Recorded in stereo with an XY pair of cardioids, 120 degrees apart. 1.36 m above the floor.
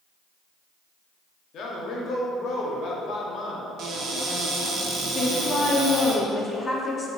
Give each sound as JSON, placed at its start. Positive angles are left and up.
{"t": 1.5, "sound": "a man speaking", "azimuth_deg": 60, "distance_m": 0.6}
{"t": 3.8, "sound": "a cupboard door", "azimuth_deg": -65, "distance_m": 0.5}
{"t": 5.2, "sound": "a woman speaking", "azimuth_deg": 30, "distance_m": 0.5}